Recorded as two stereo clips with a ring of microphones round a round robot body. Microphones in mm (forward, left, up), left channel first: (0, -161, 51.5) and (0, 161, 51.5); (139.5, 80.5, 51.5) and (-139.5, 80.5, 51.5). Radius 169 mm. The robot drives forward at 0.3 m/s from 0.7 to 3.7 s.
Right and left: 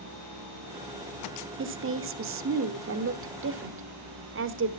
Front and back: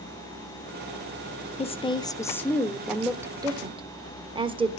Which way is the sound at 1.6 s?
60° left.